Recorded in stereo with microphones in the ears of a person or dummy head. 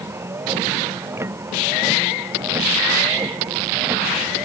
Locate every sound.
0.0 s a vehicle: 15° right (ahead or behind)